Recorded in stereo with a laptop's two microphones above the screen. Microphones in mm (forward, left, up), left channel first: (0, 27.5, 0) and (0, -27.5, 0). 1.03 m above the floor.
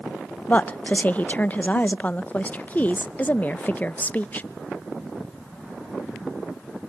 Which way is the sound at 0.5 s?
30° left (ahead or behind).